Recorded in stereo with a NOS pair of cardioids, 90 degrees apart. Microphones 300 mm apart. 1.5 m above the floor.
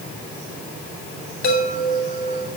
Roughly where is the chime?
Ahead left.